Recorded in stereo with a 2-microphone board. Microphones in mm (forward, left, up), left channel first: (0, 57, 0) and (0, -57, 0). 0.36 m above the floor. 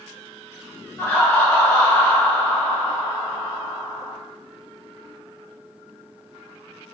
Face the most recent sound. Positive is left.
turn(degrees=20)  # may be behind; listen again after turning